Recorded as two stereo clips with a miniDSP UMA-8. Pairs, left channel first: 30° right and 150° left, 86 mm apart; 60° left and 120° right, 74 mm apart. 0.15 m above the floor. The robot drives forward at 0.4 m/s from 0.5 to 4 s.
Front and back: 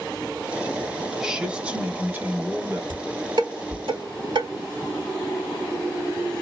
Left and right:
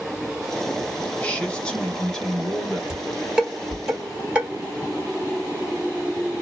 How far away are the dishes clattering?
About 1.5 m.